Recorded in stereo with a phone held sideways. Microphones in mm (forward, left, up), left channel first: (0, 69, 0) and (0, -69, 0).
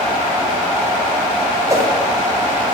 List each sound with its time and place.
1.7 s a whoosh: 25° right (ahead or behind), 5 m